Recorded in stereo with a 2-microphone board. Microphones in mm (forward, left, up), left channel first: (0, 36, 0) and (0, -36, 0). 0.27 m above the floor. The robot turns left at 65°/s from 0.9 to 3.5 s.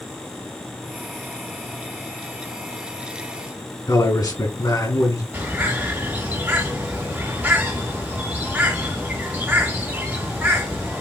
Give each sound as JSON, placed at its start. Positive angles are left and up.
{"t": 3.9, "sound": "a man speaking", "side_deg": 60, "distance_m": 2.5}
{"t": 5.3, "sound": "a bird", "side_deg": -25, "distance_m": 2.5}